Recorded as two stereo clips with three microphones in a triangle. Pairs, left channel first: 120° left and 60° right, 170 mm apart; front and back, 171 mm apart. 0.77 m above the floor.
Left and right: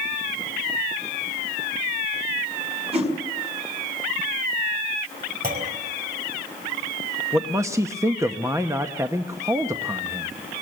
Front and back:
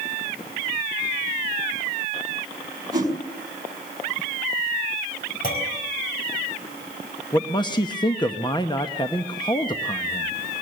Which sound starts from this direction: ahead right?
A clunk, at 5.4 s.